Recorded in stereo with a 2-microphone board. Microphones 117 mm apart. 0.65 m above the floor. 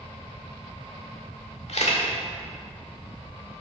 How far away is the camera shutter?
About 1.6 m.